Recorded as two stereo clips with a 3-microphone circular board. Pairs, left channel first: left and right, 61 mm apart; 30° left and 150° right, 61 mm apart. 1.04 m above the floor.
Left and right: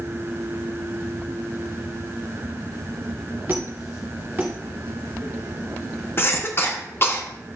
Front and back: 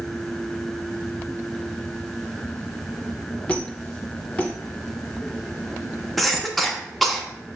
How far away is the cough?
About 0.7 m.